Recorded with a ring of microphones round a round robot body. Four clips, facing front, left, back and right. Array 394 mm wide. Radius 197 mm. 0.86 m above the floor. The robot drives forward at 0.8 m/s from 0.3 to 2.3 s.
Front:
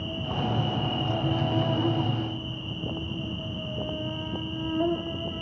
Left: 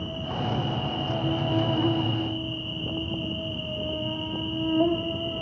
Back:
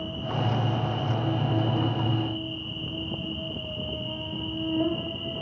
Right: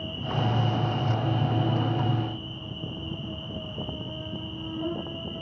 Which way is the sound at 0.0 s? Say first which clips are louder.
Right 1 dB, back 1 dB; 45° left.